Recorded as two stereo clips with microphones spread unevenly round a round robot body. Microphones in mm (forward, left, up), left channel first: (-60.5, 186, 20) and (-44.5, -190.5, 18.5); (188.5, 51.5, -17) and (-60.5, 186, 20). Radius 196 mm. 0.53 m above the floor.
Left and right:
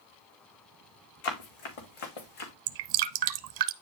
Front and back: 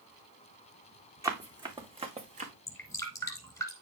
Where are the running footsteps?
75° left, 3 m; by 2.5 s 90° left, 3 m.